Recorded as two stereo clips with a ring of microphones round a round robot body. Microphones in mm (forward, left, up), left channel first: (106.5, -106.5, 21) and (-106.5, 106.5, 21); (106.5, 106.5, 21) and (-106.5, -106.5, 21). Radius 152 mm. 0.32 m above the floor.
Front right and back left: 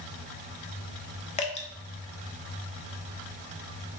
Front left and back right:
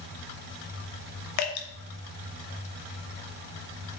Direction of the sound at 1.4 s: 20° left.